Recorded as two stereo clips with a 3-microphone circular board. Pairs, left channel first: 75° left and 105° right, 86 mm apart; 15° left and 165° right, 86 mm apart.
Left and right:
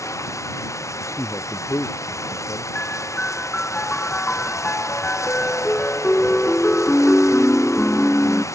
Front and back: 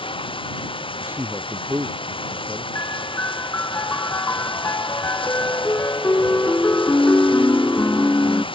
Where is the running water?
20° left.